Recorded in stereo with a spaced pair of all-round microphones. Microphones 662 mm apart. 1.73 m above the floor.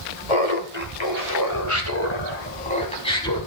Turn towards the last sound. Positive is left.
turn(degrees=5)  # may be behind; listen again after turning